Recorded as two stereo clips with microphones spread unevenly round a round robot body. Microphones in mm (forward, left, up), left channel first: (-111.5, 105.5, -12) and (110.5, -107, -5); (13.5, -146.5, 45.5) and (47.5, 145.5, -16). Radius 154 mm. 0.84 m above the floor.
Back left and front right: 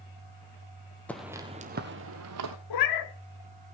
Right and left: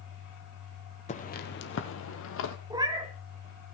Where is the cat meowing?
160° left, 1.0 m.